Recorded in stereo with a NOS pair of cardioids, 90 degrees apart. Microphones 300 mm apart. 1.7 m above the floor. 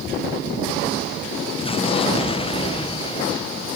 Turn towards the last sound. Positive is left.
turn(degrees=20)